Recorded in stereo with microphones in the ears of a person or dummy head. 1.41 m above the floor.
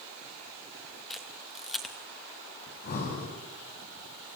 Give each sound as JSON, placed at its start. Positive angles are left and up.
{"t": 1.1, "sound": "a camera shutter", "side_deg": 5, "distance_m": 2.5}
{"t": 2.7, "sound": "breathing", "side_deg": 45, "distance_m": 6.5}